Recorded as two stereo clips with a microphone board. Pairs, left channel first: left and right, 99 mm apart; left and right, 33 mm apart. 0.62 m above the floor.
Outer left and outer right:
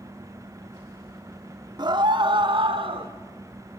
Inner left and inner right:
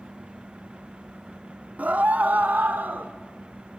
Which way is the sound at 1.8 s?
45° right (ahead or behind).